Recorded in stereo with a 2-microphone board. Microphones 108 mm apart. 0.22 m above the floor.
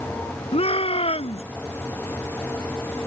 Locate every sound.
0.5 s a shout: 65° left (ahead or behind)